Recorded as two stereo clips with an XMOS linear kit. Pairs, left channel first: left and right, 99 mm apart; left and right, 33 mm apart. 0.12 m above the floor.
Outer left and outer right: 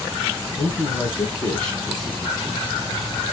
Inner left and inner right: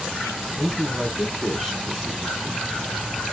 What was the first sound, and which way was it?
A man speaking, 30° left (ahead or behind).